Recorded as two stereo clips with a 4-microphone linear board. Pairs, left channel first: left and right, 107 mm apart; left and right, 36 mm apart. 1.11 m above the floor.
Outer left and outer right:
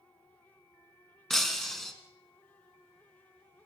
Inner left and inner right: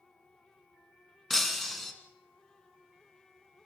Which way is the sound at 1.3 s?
Centre (ahead or behind).